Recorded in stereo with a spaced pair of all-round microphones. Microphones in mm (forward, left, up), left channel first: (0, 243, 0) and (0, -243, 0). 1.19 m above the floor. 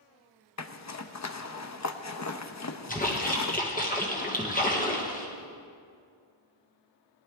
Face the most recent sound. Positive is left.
turn(degrees=15)  # may be behind; listen again after turning